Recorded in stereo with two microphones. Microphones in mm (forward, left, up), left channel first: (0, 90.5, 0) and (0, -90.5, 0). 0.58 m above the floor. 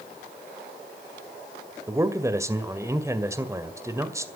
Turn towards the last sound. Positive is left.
turn(degrees=-15)  # may be behind; listen again after turning